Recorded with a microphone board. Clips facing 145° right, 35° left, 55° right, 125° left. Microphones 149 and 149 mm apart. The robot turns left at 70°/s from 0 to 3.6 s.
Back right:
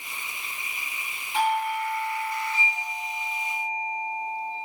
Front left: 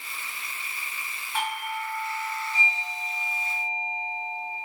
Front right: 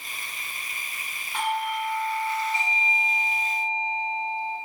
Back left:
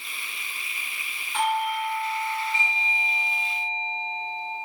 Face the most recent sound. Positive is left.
turn(degrees=65)